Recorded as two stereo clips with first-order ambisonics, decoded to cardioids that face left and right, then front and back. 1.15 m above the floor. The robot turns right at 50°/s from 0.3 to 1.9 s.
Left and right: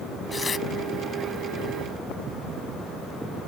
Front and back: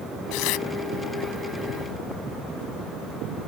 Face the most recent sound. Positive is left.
turn(degrees=90)